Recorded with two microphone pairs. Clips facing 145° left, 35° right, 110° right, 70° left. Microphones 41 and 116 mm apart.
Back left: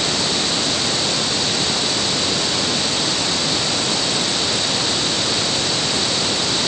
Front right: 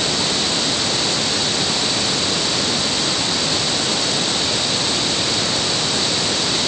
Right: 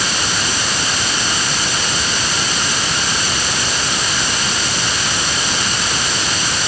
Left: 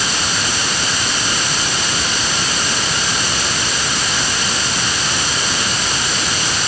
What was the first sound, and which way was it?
Only background noise.